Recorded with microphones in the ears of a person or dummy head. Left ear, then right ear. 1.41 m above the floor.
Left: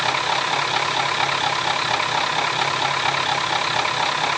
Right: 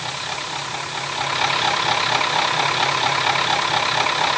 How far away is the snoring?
No snoring in this recording.